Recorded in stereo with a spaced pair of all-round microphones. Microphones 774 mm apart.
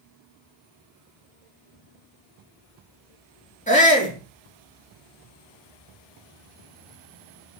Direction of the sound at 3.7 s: 10° left (ahead or behind).